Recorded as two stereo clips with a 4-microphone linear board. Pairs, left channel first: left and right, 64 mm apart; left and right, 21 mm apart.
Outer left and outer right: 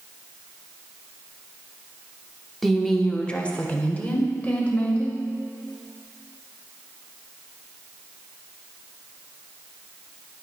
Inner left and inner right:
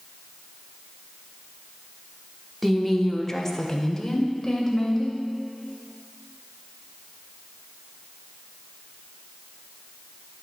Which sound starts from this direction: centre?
A woman speaking, at 2.6 s.